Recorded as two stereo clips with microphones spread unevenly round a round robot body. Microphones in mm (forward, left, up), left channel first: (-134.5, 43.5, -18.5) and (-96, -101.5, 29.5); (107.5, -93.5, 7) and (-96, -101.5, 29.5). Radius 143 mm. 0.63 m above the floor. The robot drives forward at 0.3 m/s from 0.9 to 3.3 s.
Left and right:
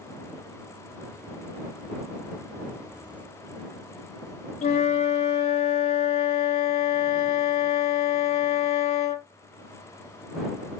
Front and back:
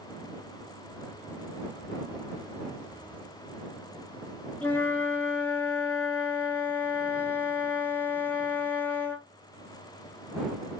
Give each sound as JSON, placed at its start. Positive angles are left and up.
{"t": 4.6, "sound": "a flute", "azimuth_deg": 80, "distance_m": 0.5}